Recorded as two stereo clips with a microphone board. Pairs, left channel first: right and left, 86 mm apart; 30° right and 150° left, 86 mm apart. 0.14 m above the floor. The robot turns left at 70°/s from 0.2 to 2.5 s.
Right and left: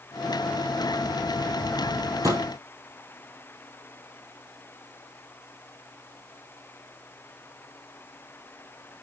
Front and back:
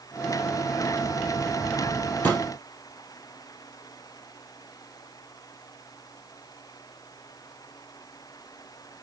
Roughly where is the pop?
Ahead left.